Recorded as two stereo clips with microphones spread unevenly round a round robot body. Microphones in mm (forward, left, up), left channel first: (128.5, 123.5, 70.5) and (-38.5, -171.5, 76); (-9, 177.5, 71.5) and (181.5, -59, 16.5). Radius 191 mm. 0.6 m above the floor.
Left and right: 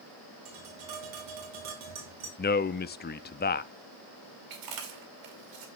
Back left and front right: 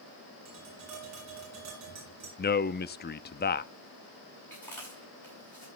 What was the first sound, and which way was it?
Tapping, 95° right.